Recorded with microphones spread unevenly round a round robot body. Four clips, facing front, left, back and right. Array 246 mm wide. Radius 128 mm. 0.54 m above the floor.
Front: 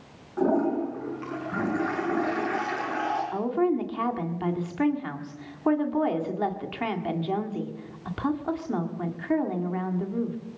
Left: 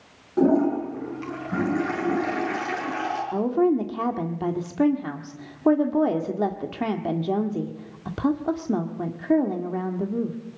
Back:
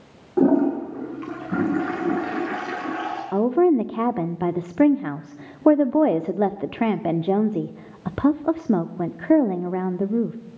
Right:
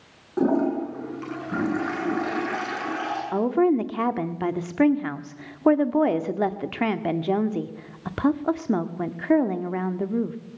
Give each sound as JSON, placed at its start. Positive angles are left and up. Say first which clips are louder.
{"t": 0.4, "sound": "a toilet flushing", "louder": "left 2 dB, back 6 dB", "azimuth_deg": 180, "distance_m": 7.5}
{"t": 3.3, "sound": "a woman speaking", "louder": "right 1 dB, back 10 dB", "azimuth_deg": -175, "distance_m": 1.5}